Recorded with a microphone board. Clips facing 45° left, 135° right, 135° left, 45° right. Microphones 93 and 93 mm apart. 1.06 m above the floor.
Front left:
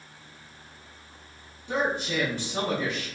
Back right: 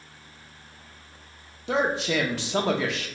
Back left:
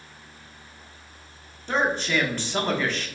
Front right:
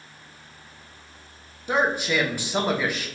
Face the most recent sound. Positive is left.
turn(degrees=-125)